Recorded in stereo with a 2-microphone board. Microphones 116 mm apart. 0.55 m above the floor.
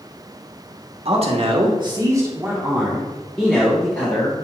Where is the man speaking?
55° right (ahead or behind), 1.3 m; by 4.3 s 20° left (ahead or behind), 2 m.